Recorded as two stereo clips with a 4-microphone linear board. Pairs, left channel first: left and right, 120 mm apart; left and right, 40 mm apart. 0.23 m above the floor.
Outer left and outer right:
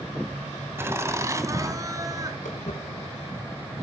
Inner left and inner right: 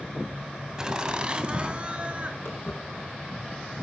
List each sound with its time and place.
0.8 s laughter: 20° right (ahead or behind), 1.6 m; by 2.4 s 30° right (ahead or behind), 3 m
2.5 s footsteps: 85° left, 8.5 m